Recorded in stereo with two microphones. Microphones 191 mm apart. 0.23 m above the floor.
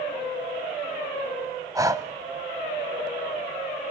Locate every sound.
1.8 s breathing: 20° right (ahead or behind), 1.0 m